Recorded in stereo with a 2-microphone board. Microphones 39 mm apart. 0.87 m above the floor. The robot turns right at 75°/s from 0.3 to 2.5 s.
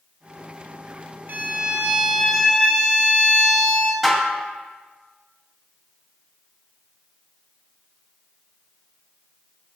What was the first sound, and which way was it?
A violin, 70° right.